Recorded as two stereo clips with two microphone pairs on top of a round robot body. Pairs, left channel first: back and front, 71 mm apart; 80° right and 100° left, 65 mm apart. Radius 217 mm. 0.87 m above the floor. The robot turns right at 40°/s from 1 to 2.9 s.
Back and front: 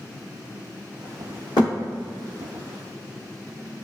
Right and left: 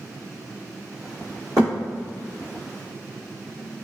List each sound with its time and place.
1.6 s a thud: 150° left, 1.4 m; by 1.7 s 155° left, 1.4 m